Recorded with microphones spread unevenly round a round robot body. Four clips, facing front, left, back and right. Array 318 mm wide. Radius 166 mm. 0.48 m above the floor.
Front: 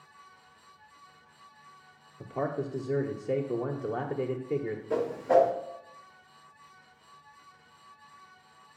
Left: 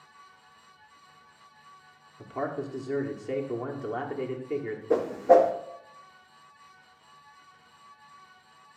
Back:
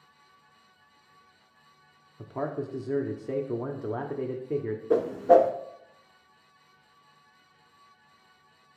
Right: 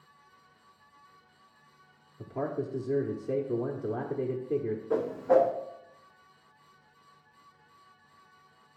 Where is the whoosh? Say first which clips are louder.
Left 5 dB, back 5 dB; 150° left, 0.8 m.